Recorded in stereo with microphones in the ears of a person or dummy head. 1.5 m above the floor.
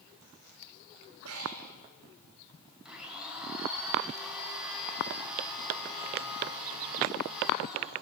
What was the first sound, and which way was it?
Breathing, 80° right.